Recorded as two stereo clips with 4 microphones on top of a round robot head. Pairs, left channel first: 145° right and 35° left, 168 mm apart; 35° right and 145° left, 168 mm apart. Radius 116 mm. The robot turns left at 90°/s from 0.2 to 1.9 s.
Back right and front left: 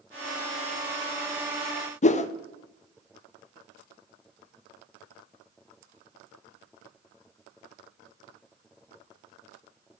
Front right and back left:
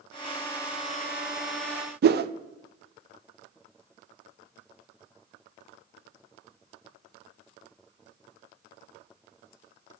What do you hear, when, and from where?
2.0 s a whoosh: 165° left, 0.5 m